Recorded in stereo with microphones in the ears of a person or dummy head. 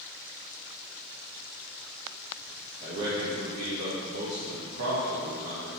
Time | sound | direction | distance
2.8 | a man speaking | 65° right (ahead or behind) | 1.5 m